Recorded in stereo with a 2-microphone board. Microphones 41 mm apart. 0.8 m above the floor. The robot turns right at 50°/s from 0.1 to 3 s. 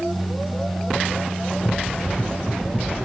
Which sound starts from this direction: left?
Running footsteps, at 1.6 s.